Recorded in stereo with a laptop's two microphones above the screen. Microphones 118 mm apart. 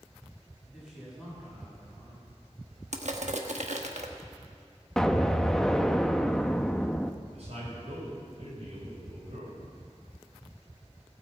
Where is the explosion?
5° left (ahead or behind), 0.7 m.